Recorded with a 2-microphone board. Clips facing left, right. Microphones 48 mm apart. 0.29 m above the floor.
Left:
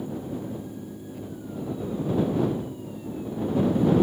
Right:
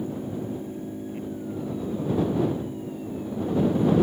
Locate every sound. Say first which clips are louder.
0.0 s an engine running: right 2 dB; 40° right (ahead or behind)